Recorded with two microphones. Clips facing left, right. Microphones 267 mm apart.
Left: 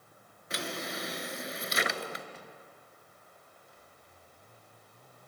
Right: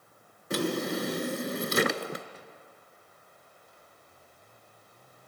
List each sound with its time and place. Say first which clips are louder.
0.5 s a drawer: right 10 dB; 50° right (ahead or behind), 0.8 m